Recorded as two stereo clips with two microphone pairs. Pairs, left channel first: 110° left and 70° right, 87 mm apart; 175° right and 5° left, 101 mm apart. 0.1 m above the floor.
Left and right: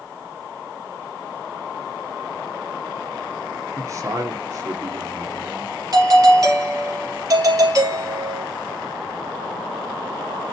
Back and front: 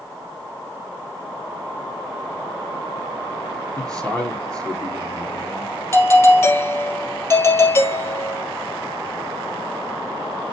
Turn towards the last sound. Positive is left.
turn(degrees=-115)